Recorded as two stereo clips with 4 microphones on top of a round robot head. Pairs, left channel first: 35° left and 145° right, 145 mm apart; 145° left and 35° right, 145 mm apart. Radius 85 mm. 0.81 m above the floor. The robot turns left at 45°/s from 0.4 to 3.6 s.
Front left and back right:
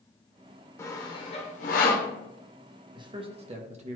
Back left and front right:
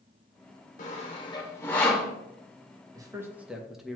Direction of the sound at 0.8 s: 105° left.